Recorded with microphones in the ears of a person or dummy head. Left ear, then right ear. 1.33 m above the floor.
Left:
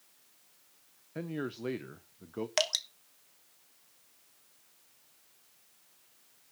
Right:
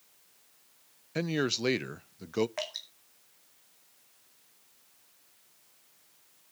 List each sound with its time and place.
1.1 s a man speaking: 80° right, 0.6 m
2.6 s dripping: 75° left (ahead or behind), 1.3 m